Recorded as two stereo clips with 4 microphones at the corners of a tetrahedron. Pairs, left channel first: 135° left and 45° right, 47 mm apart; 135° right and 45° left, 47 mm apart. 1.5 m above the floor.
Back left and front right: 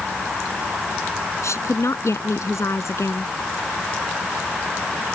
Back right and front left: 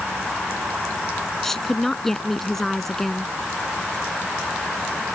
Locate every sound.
1.4 s a woman speaking: 145° left